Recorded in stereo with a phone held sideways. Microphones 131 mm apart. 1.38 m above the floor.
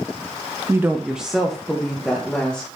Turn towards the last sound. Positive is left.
turn(degrees=10)  # may be behind; listen again after turning